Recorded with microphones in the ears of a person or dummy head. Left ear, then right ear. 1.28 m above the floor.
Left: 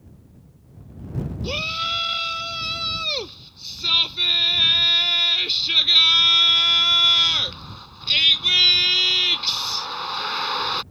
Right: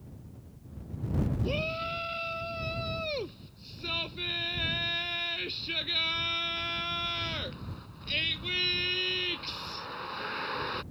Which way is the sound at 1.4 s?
35° left (ahead or behind).